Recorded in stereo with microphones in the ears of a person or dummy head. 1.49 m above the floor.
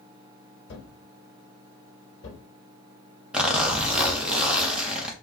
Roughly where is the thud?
Left.